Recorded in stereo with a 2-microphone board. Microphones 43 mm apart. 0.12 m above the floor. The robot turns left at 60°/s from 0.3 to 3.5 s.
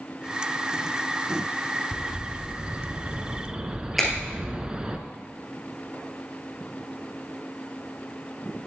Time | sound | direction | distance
1.9 | a bird | 15° right (ahead or behind) | 0.6 m
4.0 | a finger snap | centre (ahead or behind) | 2 m